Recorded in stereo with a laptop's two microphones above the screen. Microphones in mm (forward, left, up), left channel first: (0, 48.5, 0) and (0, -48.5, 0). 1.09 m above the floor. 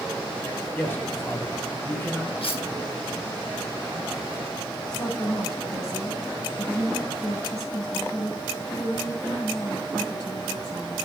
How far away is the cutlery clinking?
About 5.5 m.